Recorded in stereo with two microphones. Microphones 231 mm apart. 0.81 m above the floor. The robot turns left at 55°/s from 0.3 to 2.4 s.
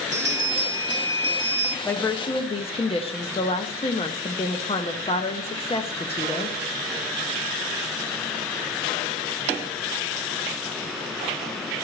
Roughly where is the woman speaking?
Behind.